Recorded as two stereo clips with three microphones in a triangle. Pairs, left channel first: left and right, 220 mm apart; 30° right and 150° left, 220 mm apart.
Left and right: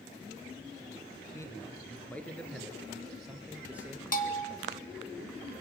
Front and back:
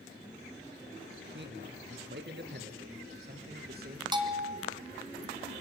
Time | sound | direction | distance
1.3 | a man speaking | 165° left | 3 m
4.1 | a bell | 90° left | 1.9 m